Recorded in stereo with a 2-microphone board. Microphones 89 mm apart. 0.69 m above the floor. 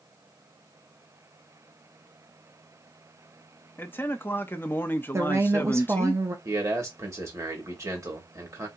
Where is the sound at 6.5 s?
35° right (ahead or behind), 1.5 m.